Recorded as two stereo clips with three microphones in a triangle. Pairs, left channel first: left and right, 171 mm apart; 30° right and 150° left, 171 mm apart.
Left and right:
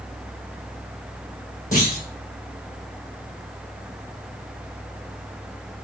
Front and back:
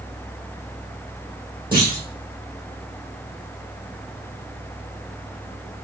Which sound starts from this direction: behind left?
A clunk, at 1.7 s.